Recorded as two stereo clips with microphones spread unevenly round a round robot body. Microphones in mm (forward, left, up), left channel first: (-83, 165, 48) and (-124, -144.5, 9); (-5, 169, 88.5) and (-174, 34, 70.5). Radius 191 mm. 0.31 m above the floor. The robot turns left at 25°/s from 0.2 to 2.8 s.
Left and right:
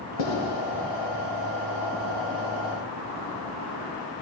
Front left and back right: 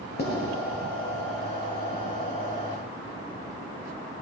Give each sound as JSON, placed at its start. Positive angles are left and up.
{"t": 0.2, "sound": "writing", "azimuth_deg": 80, "distance_m": 2.0}